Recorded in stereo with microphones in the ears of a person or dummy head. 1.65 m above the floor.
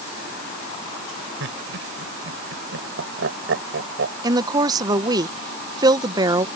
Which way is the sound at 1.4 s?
70° right (ahead or behind).